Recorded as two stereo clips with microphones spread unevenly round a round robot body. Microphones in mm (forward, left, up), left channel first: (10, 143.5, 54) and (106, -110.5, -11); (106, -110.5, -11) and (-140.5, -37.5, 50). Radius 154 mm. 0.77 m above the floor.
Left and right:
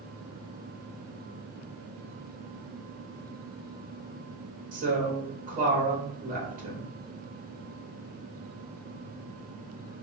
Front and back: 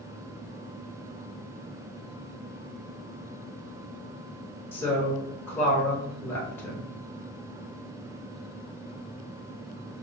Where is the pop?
No pop in this recording.